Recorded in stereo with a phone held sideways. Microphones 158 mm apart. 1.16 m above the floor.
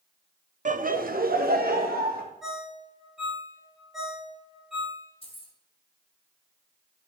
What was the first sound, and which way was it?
Laughter, 55° right (ahead or behind).